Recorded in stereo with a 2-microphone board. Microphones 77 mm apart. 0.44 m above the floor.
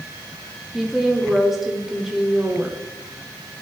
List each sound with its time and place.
0.7 s a woman speaking: 5° right (ahead or behind), 0.8 m